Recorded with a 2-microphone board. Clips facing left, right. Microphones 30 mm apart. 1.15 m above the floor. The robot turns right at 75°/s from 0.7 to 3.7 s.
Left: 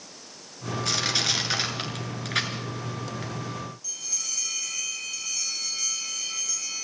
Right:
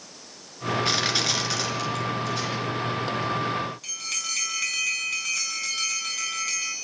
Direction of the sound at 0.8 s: 25° right (ahead or behind).